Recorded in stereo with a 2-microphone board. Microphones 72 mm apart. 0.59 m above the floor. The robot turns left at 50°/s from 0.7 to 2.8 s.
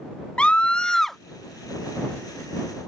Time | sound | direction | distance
0.4 | a scream | 15° left (ahead or behind) | ?